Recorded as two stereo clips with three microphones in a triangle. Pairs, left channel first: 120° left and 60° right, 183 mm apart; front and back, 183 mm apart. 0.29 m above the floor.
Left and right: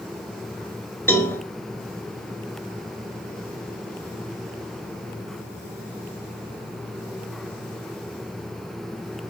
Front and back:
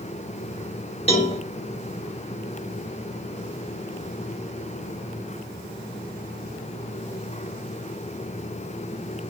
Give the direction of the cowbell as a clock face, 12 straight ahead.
10 o'clock.